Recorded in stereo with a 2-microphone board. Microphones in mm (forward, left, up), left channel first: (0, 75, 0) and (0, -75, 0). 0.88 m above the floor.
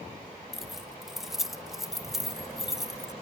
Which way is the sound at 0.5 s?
Centre (ahead or behind).